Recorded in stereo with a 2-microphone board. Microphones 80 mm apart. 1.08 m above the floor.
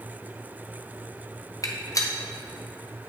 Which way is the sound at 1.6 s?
45° left (ahead or behind).